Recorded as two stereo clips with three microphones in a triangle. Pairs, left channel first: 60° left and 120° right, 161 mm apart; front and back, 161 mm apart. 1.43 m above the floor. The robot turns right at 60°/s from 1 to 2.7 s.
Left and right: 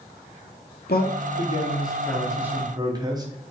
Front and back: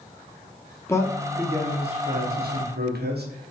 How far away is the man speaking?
About 1.0 m.